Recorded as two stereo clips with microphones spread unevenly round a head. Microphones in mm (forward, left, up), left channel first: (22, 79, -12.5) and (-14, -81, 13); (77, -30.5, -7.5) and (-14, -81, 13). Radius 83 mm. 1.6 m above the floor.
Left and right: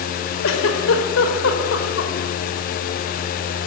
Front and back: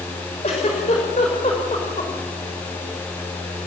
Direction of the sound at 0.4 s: 85° left.